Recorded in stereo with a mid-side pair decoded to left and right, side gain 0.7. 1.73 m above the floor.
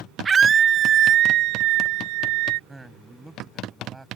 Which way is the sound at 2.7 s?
10° right.